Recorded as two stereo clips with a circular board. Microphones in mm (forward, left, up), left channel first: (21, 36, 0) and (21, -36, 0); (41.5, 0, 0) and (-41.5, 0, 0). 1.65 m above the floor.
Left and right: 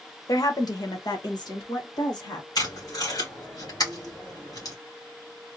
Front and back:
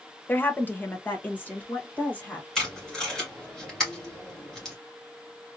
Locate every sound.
0.3 s a woman speaking: 65° left, 0.7 m; by 2.5 s 70° left, 2.5 m
2.5 s tape being pulled: 80° left, 2.5 m